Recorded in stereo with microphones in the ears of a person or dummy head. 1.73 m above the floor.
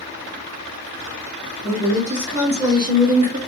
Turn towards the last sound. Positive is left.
turn(degrees=-35)  # may be behind; listen again after turning